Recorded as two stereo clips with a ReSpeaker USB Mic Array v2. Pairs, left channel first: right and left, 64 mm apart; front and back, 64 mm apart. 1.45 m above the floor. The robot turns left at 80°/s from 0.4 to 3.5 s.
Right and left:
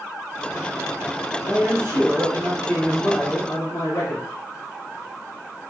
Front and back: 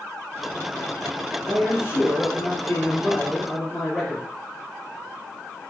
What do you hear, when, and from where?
1.4 s a man speaking: 80° left, 1.8 m; by 4.2 s 85° right, 1.8 m